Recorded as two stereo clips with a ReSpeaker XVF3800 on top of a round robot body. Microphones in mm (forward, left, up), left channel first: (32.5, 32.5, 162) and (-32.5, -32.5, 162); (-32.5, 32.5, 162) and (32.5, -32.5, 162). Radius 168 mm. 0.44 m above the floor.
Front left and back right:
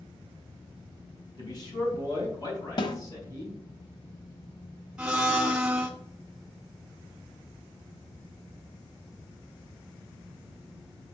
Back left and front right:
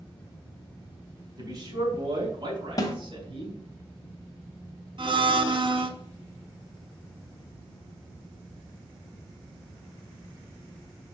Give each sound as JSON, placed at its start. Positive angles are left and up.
{"t": 1.4, "sound": "a man speaking", "azimuth_deg": 5, "distance_m": 5.0}
{"t": 2.8, "sound": "a snare drum", "azimuth_deg": 85, "distance_m": 1.0}
{"t": 5.0, "sound": "a blender", "azimuth_deg": -55, "distance_m": 1.5}